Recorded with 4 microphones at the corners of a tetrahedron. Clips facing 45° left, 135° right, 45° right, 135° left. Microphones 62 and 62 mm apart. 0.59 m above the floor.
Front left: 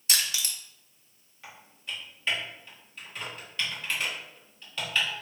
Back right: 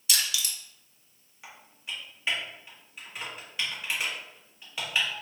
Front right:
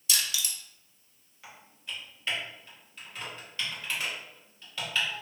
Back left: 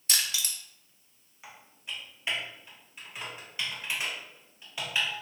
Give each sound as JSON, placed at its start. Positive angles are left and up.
{"t": 0.1, "sound": "crushing", "azimuth_deg": 95, "distance_m": 0.7}
{"t": 1.4, "sound": "typing on a keyboard", "azimuth_deg": 170, "distance_m": 1.3}